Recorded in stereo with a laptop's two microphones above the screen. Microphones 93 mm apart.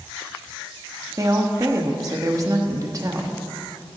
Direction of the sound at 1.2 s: 35° right (ahead or behind).